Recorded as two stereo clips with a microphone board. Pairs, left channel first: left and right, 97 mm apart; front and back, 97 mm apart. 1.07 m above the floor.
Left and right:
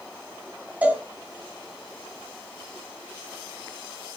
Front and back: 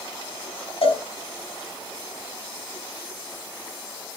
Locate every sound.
0.8 s a cowbell: 15° right, 3.5 m